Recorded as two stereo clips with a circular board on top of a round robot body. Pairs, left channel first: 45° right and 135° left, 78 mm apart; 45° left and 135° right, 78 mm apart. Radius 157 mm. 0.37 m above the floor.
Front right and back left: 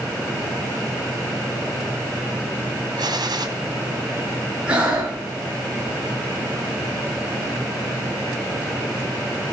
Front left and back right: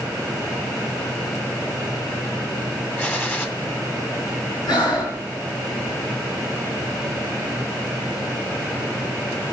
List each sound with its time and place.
3.0 s a gunshot: 110° left, 2.0 m
4.7 s breathing: 60° left, 4.5 m